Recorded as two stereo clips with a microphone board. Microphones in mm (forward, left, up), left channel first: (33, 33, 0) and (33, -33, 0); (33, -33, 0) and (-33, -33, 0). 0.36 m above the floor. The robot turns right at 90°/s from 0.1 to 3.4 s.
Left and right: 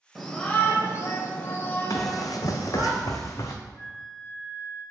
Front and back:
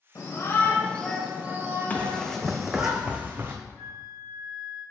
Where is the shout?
5° right, 1.5 m; by 2.9 s 115° right, 1.5 m.